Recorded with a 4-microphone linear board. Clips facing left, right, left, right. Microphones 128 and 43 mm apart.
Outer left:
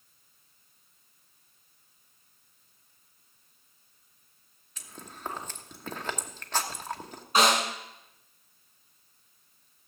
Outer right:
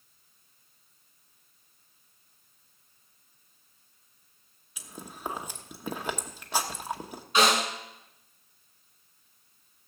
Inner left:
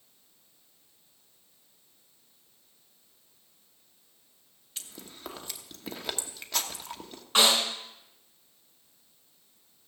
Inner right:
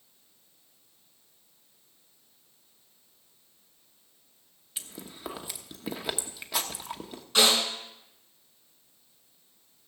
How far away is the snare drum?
About 6 m.